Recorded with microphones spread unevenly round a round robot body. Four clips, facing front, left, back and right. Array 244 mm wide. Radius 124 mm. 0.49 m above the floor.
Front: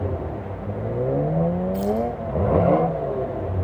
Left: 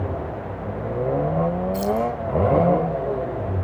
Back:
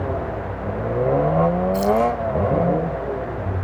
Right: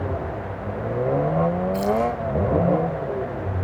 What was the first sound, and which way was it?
Keys jangling, 120° left.